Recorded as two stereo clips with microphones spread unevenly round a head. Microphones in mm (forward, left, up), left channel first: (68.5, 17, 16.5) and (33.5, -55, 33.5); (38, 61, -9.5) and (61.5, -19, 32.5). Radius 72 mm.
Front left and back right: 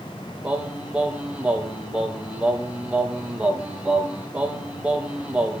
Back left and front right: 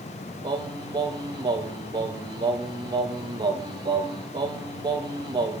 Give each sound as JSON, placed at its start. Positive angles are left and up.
{"t": 0.4, "sound": "singing", "azimuth_deg": -35, "distance_m": 3.0}